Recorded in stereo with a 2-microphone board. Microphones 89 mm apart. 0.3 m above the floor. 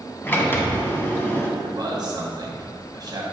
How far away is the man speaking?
About 1.8 m.